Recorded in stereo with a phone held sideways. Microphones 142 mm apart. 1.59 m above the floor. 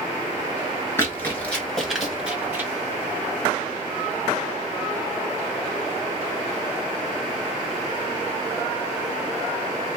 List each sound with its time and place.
1.0 s running footsteps: 20° left (ahead or behind), 1.7 m; by 2.7 s 15° right (ahead or behind), 1.6 m